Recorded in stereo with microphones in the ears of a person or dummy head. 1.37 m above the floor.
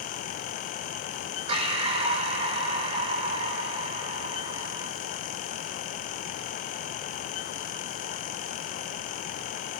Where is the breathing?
35° right (ahead or behind), 5 m.